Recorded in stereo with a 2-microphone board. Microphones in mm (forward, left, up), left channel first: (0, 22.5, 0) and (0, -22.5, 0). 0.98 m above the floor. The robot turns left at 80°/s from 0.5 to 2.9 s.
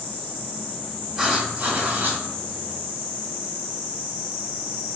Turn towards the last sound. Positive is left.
turn(degrees=-150)